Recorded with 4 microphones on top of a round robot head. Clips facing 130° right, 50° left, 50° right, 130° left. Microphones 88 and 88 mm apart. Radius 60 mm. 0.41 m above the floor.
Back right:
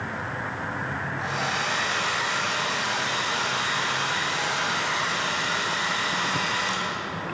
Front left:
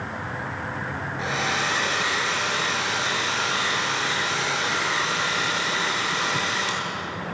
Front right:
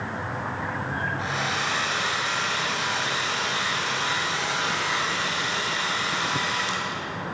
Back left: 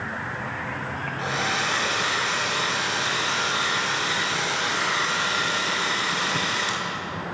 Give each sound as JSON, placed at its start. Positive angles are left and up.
{"t": 1.2, "sound": "a hair dryer", "azimuth_deg": 85, "distance_m": 7.5}